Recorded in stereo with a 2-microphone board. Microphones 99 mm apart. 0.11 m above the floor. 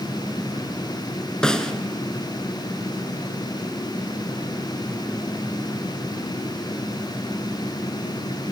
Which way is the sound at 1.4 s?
10° left (ahead or behind).